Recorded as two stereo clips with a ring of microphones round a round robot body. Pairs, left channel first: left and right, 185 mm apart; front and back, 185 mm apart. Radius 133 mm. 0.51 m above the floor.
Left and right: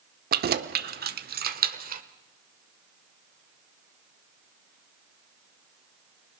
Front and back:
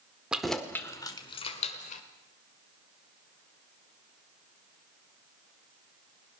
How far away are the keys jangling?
About 1.1 m.